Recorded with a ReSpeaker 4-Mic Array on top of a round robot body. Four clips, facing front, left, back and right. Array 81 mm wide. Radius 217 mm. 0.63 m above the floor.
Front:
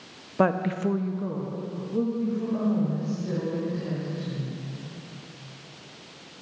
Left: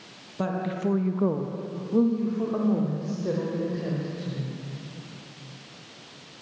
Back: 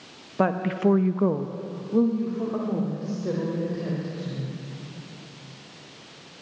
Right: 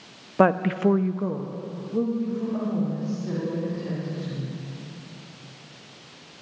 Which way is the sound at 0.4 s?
85° right.